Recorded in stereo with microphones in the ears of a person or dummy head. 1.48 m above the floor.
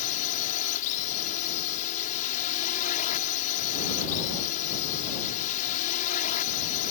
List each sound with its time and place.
0.0 s a drone: 45° left (ahead or behind)